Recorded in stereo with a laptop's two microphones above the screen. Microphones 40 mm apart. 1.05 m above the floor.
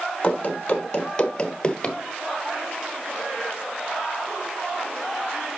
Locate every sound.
0.2 s running footsteps: 25° left (ahead or behind), 1.6 m; by 2.0 s 15° left (ahead or behind), 1.0 m